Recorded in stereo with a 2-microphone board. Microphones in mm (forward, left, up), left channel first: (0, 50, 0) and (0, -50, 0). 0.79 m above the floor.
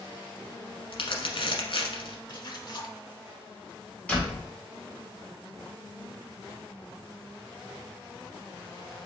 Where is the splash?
50° left (ahead or behind), 0.8 m.